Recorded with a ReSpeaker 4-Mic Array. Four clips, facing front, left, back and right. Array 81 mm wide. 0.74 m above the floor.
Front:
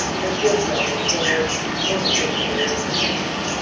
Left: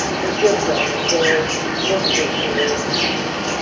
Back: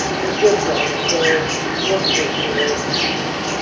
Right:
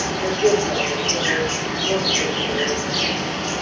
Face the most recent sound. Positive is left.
turn(degrees=135)